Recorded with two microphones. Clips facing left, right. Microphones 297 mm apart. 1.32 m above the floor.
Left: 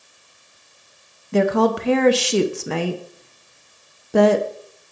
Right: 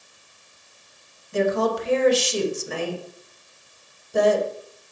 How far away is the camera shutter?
No camera shutter in this recording.